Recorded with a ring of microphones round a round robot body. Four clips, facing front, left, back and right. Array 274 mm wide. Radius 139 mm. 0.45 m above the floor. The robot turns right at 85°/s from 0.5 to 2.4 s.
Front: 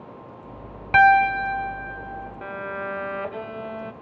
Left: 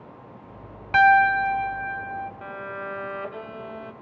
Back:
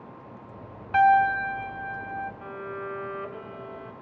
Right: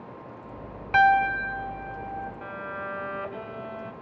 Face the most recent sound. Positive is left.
turn(degrees=5)